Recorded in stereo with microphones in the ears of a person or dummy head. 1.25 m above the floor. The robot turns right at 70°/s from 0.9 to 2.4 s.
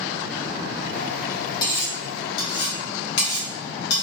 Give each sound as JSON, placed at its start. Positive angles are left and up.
{"t": 1.6, "sound": "cutlery clinking", "side_deg": 25, "distance_m": 0.8}